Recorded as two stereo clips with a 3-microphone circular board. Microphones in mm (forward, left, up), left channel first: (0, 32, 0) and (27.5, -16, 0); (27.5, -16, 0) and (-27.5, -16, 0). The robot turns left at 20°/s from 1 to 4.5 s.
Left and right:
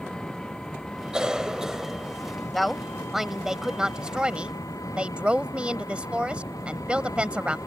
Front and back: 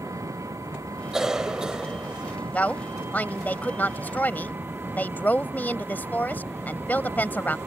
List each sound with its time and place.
0.0 s an engine running: 160° right; by 7.7 s 130° left
1.1 s a cough: 110° right; by 2.4 s 135° right
2.5 s a woman speaking: 35° left; by 7.6 s 5° right